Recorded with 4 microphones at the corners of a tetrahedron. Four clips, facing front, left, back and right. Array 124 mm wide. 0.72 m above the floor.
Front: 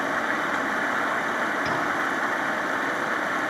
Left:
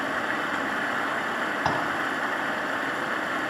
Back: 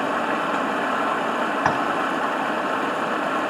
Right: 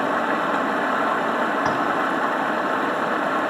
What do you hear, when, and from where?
0.0 s running water: 120° right, 0.9 m
1.6 s tapping: 170° left, 3 m